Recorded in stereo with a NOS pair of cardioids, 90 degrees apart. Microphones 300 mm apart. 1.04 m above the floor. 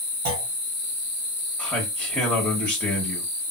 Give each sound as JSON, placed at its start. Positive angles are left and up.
{"t": 0.2, "sound": "a clunk", "azimuth_deg": -65, "distance_m": 1.2}
{"t": 1.6, "sound": "a man speaking", "azimuth_deg": 5, "distance_m": 1.1}